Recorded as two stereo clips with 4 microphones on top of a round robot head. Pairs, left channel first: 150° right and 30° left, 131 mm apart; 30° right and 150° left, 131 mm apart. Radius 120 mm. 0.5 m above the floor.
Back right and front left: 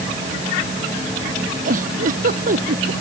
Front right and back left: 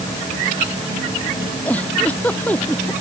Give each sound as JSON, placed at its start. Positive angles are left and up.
{"t": 1.6, "sound": "a giggle", "azimuth_deg": 50}